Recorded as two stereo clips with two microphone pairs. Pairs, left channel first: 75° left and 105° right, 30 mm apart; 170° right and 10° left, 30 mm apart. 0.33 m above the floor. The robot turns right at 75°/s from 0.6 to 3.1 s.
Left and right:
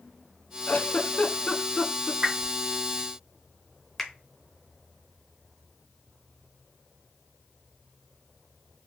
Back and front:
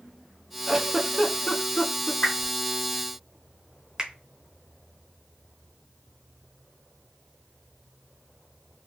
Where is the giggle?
80° left, 0.7 m; by 2.1 s 175° right, 0.7 m.